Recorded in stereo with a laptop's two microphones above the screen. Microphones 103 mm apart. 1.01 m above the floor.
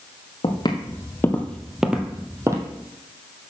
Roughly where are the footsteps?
Left.